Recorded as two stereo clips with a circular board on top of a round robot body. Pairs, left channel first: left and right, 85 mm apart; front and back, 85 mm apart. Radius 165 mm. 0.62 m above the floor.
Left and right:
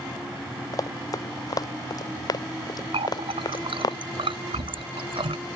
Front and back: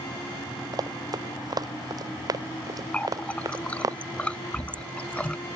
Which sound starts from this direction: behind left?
Running footsteps, at 0.7 s.